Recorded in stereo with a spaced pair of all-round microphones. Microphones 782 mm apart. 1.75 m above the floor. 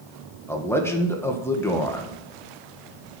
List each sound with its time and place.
0.5 s a man speaking: 5° left (ahead or behind), 1.5 m